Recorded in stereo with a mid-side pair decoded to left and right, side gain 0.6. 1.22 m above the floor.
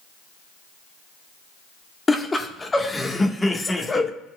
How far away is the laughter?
About 1.5 m.